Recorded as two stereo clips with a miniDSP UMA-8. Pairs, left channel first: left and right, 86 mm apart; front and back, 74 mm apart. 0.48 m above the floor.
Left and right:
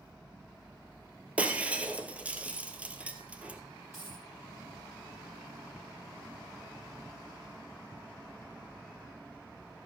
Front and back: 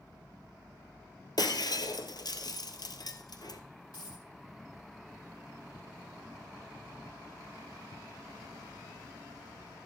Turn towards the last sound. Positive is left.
turn(degrees=-30)